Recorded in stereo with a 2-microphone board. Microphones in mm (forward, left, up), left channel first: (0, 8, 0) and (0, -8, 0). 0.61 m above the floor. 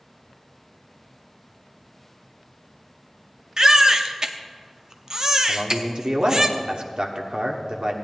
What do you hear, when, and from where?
3.6 s a baby crying: 35° right (ahead or behind), 0.7 m
5.5 s a man speaking: 50° right (ahead or behind), 1.2 m